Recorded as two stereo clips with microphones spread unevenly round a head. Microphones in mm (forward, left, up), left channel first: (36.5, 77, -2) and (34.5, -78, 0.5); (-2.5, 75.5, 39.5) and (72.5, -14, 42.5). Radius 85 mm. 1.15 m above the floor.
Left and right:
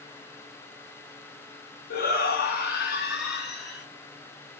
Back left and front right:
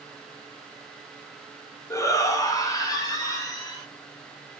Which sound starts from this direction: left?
A shout, at 1.9 s.